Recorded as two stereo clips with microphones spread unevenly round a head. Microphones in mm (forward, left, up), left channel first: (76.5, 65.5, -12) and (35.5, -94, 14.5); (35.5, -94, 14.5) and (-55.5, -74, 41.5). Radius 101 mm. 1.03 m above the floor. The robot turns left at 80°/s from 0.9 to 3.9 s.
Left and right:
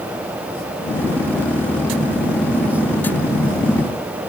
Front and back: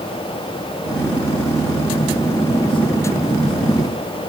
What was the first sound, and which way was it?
Only background noise.